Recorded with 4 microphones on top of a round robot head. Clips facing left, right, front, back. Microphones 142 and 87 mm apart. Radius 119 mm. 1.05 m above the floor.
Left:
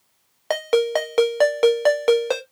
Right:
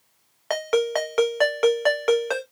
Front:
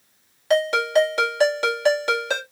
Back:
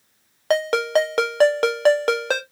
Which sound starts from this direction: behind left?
A ringtone, at 0.5 s.